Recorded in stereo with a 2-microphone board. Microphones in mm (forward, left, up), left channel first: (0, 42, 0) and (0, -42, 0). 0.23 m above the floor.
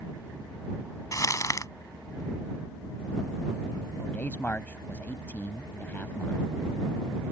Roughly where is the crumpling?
Left.